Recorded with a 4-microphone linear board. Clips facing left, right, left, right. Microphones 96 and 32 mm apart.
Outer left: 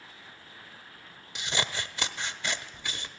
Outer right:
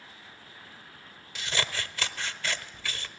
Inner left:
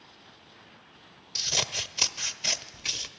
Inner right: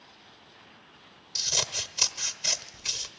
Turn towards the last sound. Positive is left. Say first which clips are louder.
# even, inner left 1 dB
turn(degrees=20)  # may be behind; listen again after turning